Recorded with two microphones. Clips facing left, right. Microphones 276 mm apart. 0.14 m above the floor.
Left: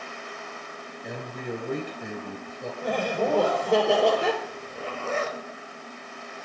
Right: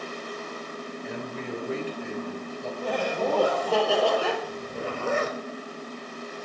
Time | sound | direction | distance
1.0 | a man speaking | 55° left (ahead or behind) | 2.5 m
2.8 | laughter | 20° left (ahead or behind) | 4 m
4.4 | a zipper | 50° right (ahead or behind) | 1.2 m